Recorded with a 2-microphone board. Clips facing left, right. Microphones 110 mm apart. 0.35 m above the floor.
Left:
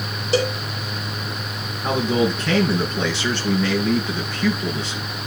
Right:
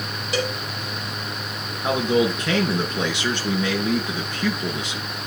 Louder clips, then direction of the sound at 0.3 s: Left 5 dB; 30° left (ahead or behind).